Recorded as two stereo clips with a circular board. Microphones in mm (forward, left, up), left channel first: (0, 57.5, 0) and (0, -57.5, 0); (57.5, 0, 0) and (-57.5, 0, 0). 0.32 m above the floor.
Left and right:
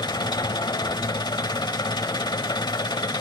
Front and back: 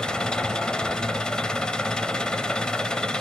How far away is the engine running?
About 1.1 m.